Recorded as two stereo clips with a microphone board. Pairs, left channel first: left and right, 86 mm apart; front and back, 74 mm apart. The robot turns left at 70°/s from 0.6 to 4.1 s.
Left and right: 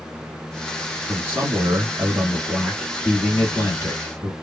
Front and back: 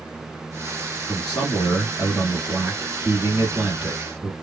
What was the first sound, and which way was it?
A man speaking, 55° right.